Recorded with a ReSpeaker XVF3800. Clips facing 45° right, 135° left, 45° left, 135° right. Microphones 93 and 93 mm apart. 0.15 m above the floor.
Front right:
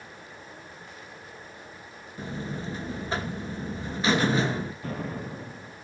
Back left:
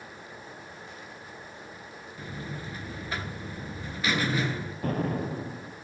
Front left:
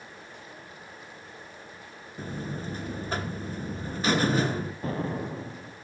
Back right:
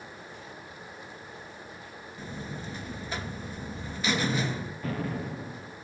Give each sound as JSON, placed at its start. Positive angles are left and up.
{"t": 2.2, "sound": "a buzzer", "azimuth_deg": 10, "distance_m": 2.0}
{"t": 4.8, "sound": "an explosion", "azimuth_deg": 100, "distance_m": 2.0}